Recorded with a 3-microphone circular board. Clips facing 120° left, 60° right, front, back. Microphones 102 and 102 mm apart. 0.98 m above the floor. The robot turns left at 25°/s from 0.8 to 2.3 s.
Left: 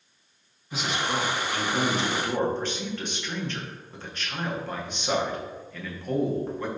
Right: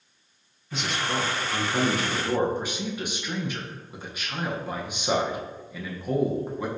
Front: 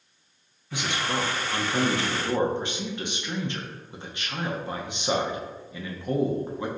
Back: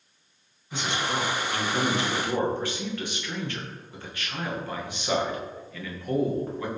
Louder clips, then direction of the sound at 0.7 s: Even, even; 40° left.